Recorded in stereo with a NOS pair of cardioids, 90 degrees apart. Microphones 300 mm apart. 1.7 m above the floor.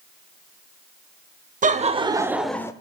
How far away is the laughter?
About 0.9 m.